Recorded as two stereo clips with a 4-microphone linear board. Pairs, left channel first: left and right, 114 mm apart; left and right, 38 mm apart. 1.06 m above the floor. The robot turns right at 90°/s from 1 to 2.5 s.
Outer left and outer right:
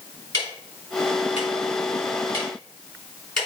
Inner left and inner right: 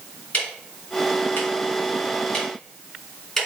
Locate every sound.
0.3 s ticking: 40° left (ahead or behind), 4 m; by 3.5 s 5° left (ahead or behind), 4 m